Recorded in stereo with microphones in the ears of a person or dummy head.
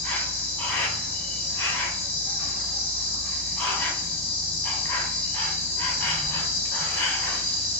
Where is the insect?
10° left (ahead or behind), 0.8 m.